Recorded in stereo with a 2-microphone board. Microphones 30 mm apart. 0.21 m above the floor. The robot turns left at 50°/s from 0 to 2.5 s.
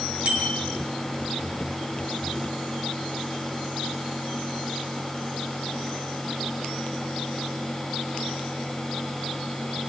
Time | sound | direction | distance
0.2 | a bicycle bell | 40° right (ahead or behind) | 7 m